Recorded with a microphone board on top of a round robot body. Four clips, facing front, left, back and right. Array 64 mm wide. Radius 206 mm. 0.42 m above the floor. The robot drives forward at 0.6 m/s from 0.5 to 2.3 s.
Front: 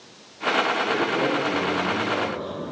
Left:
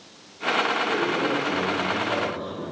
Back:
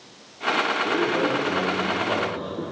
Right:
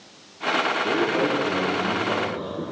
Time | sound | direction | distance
0.8 | a man speaking | 110° right | 1.4 m